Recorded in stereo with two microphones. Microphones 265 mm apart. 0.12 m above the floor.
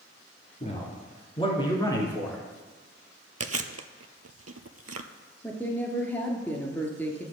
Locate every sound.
0.6 s a man speaking: 25° left (ahead or behind), 2.5 m; by 2.4 s 5° left (ahead or behind), 1.8 m
3.4 s chewing: 70° right (ahead or behind), 0.6 m
5.4 s a woman speaking: 5° left (ahead or behind), 1.7 m